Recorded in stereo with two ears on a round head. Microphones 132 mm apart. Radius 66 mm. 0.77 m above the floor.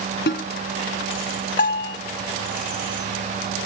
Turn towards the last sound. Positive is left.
turn(degrees=55)  # may be behind; listen again after turning